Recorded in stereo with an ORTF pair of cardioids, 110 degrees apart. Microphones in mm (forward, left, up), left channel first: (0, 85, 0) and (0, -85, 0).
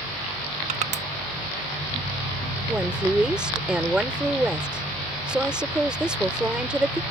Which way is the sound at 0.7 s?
45° right.